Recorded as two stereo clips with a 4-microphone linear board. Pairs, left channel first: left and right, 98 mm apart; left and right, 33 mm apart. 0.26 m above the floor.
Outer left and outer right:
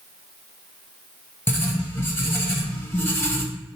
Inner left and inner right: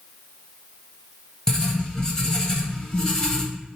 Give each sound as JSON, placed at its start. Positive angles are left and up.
{"t": 1.5, "sound": "writing", "side_deg": 20, "distance_m": 0.7}